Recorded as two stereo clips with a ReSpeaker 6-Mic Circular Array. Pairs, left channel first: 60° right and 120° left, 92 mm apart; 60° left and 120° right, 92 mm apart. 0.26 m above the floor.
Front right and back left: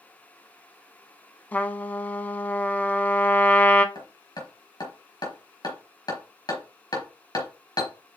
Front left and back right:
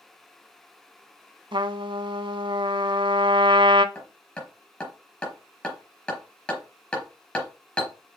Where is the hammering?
15° right, 4.5 m.